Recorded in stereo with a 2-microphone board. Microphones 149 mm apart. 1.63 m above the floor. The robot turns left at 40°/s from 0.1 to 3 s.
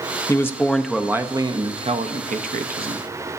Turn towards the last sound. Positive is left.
turn(degrees=-90)